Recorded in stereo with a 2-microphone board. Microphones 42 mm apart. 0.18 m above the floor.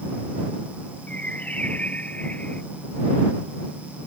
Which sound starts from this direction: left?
A bird, at 1.1 s.